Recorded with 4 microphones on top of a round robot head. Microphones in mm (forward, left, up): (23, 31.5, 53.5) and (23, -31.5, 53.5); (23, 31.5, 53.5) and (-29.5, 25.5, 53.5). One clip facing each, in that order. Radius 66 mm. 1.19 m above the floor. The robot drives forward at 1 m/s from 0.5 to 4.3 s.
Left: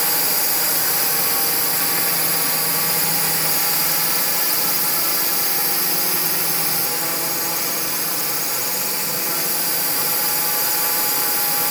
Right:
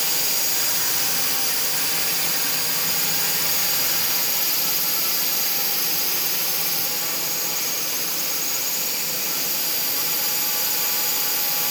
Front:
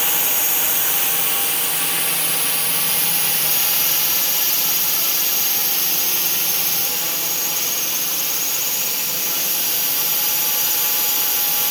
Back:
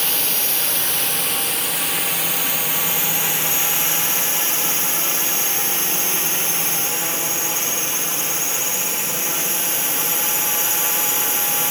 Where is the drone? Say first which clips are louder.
Left 5 dB, front 1 dB; 75° left; by 11.7 s 130° left.